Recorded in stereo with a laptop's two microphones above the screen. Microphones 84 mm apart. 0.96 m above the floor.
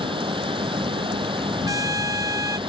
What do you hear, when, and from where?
0.0 s a fan: 80° right
1.7 s a trumpet: 45° right (ahead or behind)